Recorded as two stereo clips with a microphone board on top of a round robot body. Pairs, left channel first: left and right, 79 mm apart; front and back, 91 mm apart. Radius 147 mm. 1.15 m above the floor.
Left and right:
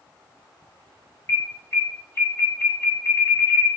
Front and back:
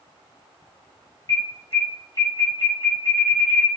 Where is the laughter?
I don't hear laughter.